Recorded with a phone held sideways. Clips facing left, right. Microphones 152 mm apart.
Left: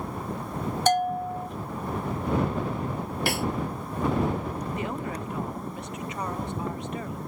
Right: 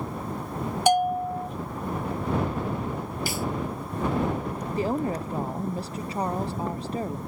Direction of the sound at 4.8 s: 35° right (ahead or behind).